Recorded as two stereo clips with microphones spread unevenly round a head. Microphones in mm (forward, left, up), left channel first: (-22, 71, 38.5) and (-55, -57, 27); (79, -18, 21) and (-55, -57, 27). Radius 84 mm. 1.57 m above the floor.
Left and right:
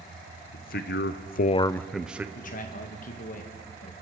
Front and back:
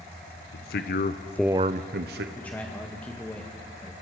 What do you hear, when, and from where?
0.5 s a man speaking: 40° left, 1.3 m; by 2.2 s 175° left, 1.2 m
2.4 s a man speaking: 100° left, 1.8 m